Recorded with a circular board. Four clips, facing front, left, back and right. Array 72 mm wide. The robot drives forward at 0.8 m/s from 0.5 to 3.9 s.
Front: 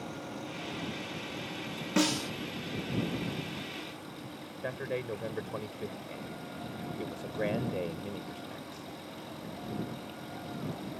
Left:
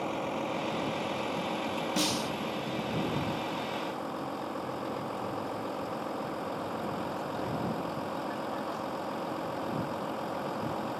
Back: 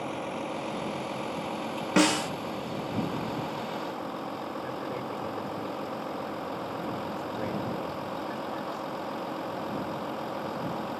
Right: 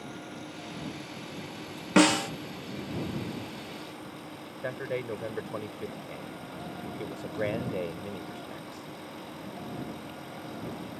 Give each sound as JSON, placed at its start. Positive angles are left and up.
{"t": 0.0, "sound": "a vehicle", "azimuth_deg": 125}
{"t": 2.0, "sound": "a snare drum", "azimuth_deg": -110}
{"t": 4.6, "sound": "a man speaking", "azimuth_deg": -65}